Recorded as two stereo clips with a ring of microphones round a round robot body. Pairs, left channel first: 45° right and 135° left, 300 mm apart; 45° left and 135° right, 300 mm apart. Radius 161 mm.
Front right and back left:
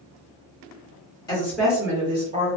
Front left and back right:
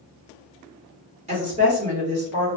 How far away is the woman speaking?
About 1.1 m.